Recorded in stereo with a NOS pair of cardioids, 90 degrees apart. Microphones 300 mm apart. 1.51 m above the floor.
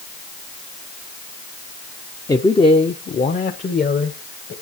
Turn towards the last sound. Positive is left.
turn(degrees=35)